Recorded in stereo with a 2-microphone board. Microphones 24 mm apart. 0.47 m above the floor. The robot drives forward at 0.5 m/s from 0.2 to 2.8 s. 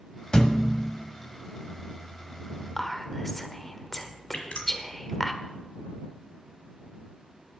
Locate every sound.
0.3 s a thud: 25° left (ahead or behind), 1.0 m; by 0.9 s 35° left (ahead or behind), 0.7 m
2.8 s whispering: 15° left (ahead or behind), 1.1 m
4.3 s dripping: 80° left, 1.7 m